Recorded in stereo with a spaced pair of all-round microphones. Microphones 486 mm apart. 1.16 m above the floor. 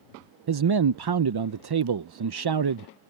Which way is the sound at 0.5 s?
50° right (ahead or behind).